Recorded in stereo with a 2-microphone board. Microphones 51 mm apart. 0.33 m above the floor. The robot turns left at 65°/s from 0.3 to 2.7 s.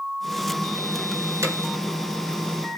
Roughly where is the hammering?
Right.